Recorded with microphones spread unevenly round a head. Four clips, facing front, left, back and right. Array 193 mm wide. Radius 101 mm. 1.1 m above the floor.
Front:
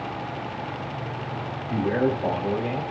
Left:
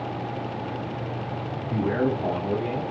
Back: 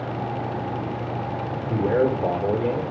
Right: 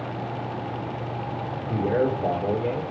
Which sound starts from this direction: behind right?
A man speaking, at 1.7 s.